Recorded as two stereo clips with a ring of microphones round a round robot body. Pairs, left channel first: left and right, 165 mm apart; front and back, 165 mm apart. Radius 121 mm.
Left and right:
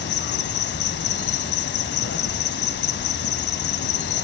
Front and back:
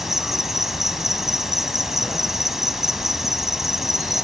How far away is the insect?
About 0.9 m.